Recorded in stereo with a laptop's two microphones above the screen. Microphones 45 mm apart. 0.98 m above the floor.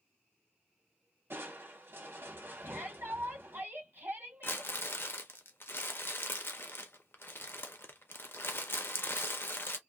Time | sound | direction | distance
1.3 | crushing | 55° right (ahead or behind) | 1.1 m
2.6 | a shout | 50° right (ahead or behind) | 1.3 m
4.4 | crumpling | 60° left (ahead or behind) | 0.6 m